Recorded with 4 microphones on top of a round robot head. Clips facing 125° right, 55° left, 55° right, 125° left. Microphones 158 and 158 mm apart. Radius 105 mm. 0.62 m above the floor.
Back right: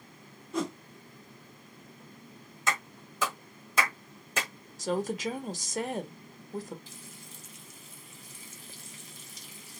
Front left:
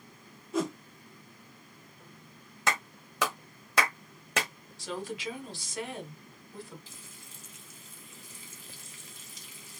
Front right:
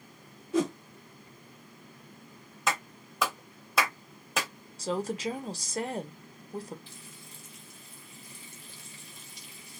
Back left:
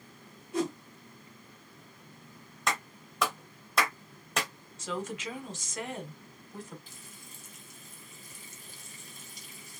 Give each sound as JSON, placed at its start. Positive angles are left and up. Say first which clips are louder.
{"t": 0.5, "sound": "a whoosh", "louder": "front left 2 dB, front right 4 dB", "azimuth_deg": -30, "distance_m": 0.6}
{"t": 2.7, "sound": "a clap", "louder": "front left 1 dB, front right 2 dB", "azimuth_deg": 35, "distance_m": 1.1}
{"t": 4.8, "sound": "a woman speaking", "louder": "back right 6 dB, front right 5 dB", "azimuth_deg": -95, "distance_m": 0.8}
{"t": 6.9, "sound": "frying", "louder": "back right 3 dB, front right 2 dB", "azimuth_deg": 75, "distance_m": 0.7}